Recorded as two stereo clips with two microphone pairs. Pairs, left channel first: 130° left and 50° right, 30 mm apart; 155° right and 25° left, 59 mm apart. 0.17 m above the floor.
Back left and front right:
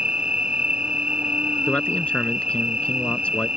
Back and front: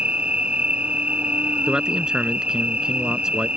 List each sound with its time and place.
0.0 s an insect: 30° right
1.7 s a man speaking: 100° left